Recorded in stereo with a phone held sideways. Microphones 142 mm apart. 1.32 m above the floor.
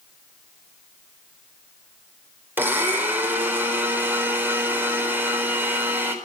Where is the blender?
15° right (ahead or behind), 4 m.